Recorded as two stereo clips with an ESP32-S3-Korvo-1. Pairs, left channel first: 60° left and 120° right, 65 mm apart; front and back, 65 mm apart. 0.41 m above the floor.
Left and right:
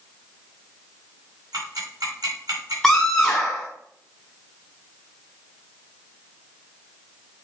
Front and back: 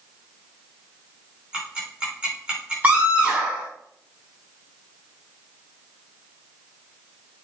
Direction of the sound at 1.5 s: 105° right.